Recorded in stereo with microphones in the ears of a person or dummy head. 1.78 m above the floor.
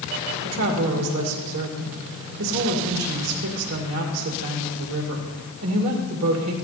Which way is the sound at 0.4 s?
80° right.